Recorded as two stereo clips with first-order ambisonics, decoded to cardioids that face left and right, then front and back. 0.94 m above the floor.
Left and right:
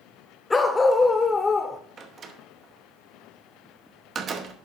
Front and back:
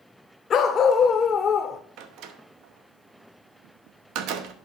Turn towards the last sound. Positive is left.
turn(degrees=-155)